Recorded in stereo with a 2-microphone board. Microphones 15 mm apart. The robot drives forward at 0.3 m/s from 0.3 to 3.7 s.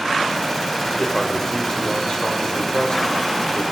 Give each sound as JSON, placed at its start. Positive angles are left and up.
{"t": 1.0, "sound": "a man speaking", "side_deg": 40, "distance_m": 2.5}